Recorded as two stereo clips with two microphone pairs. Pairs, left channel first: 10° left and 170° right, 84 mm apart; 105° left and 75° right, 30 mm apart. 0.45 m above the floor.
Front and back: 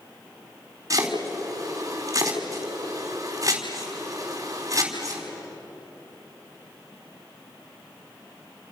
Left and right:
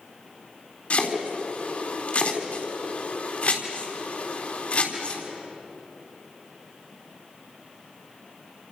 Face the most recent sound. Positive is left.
turn(degrees=145)